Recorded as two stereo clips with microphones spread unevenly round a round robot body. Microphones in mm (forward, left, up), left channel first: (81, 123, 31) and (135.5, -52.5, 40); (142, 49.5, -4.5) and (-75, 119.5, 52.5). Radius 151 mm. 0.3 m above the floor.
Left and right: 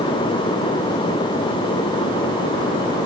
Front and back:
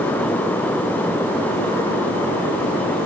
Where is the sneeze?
I don't hear a sneeze.